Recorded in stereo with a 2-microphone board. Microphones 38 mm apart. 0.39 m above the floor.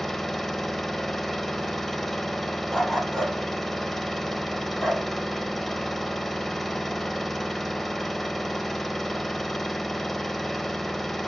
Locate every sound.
0.0 s an engine running: 10° left (ahead or behind), 0.8 m
2.7 s a dog barking: 5° left (ahead or behind), 5.5 m